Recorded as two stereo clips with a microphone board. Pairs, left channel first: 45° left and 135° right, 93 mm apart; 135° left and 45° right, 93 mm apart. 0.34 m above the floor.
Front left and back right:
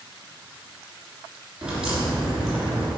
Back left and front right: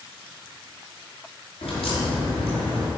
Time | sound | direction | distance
1.6 | a crack | 145° left | 3 m